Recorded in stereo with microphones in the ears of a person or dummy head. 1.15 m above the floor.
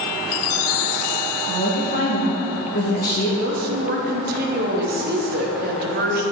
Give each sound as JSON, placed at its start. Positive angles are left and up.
{"t": 1.5, "sound": "a woman speaking", "side_deg": 55, "distance_m": 1.6}
{"t": 3.4, "sound": "a woman speaking", "side_deg": -35, "distance_m": 0.6}